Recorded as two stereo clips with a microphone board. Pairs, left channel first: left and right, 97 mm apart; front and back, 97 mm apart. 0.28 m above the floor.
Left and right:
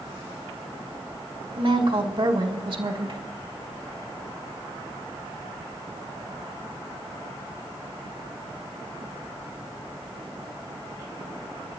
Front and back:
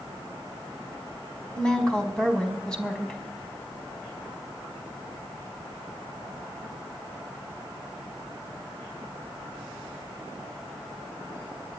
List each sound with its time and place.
1.6 s a woman speaking: 80° right, 1.7 m